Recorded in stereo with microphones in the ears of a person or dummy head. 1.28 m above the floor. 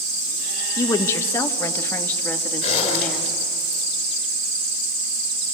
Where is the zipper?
40° left (ahead or behind), 5 m.